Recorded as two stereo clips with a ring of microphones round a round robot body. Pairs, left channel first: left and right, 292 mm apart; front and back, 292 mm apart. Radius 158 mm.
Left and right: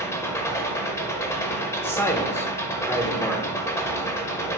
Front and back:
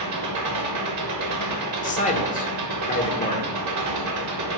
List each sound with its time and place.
0.0 s an engine running: 170° left, 1.2 m
1.8 s a man speaking: 15° left, 0.8 m